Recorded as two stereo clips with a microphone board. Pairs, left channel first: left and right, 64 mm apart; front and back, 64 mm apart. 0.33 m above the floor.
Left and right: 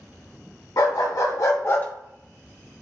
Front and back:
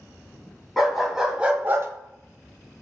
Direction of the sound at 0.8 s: 90° left.